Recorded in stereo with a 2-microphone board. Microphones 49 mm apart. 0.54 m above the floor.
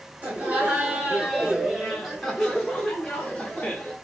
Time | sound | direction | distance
0.2 | laughter | 30° right (ahead or behind) | 2 m